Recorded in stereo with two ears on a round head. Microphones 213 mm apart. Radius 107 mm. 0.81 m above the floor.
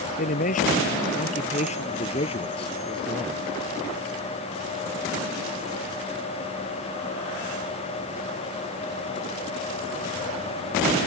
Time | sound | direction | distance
0.2 | a man speaking | 35° left (ahead or behind) | ?